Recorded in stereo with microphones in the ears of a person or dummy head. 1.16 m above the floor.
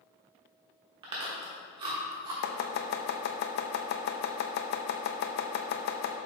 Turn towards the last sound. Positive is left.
turn(degrees=55)  # may be behind; listen again after turning